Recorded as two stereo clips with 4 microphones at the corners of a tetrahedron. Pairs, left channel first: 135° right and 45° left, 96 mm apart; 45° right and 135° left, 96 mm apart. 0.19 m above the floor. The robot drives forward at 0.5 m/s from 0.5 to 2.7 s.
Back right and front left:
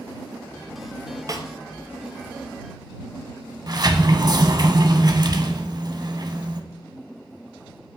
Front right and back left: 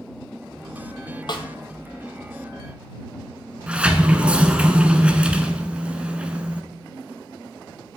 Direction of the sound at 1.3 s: 5° right.